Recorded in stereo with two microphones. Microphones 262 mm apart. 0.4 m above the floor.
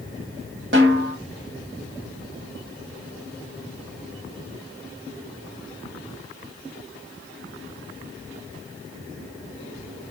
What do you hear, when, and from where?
0.7 s a snare drum: 50° right (ahead or behind), 2.5 m